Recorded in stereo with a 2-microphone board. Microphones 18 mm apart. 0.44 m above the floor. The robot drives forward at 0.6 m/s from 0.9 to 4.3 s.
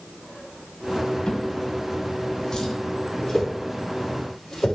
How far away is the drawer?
About 1.7 m.